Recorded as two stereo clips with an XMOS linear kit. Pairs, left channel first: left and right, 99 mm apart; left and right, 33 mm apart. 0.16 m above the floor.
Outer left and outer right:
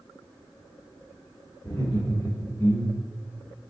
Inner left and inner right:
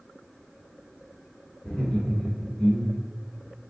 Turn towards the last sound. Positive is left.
turn(degrees=25)  # may be behind; listen again after turning